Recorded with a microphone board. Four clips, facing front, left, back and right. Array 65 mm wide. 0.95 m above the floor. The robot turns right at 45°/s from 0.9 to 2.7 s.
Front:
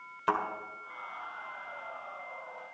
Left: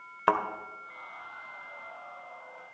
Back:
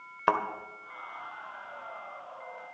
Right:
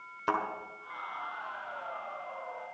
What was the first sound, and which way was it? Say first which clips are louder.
A thud: left 5 dB, back 3 dB; 135° left.